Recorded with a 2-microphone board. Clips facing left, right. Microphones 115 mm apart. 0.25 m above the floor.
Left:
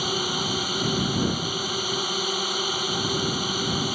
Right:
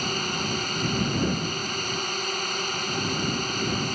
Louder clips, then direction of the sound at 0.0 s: Left 2 dB; 10° left (ahead or behind).